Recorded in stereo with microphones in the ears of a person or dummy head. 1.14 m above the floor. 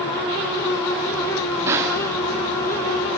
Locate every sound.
1.6 s a snare drum: 25° right (ahead or behind), 3 m